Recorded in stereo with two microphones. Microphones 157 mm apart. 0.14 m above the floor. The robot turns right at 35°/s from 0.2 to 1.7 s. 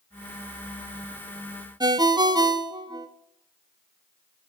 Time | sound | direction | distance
1.8 | a ringtone | 25° right (ahead or behind) | 0.7 m